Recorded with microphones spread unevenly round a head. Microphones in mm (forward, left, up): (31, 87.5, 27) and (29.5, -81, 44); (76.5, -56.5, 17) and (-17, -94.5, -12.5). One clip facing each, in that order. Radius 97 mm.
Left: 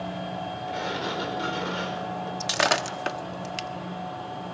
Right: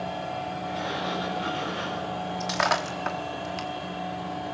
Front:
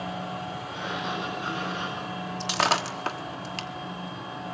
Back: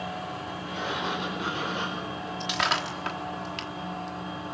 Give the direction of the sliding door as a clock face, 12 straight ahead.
7 o'clock.